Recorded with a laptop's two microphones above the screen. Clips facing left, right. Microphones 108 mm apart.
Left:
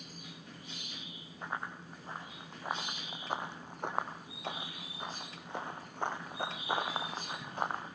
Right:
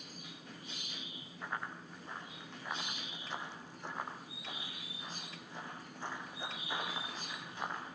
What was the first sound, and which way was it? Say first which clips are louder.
Running footsteps: left 2 dB; 25° left (ahead or behind).